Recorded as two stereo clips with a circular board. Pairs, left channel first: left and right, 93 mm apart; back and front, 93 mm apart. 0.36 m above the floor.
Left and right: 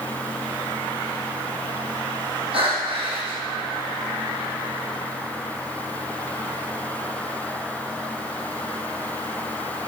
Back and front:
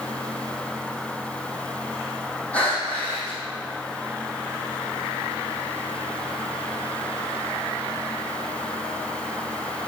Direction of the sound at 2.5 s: 105° right.